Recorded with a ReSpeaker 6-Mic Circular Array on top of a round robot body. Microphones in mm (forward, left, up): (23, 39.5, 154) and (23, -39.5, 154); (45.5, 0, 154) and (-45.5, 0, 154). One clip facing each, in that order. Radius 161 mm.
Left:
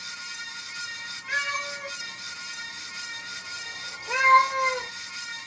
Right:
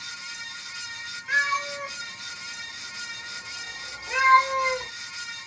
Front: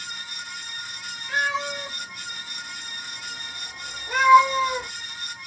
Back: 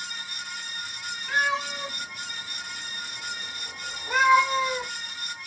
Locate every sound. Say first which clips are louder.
1.3 s a cat meowing: right 5 dB, even; 170° right, 2.5 m; by 4.9 s 40° left, 1.0 m